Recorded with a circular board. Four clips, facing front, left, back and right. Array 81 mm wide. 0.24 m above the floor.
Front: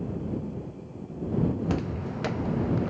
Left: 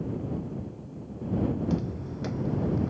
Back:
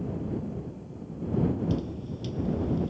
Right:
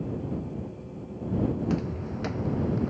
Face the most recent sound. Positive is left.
turn(degrees=-10)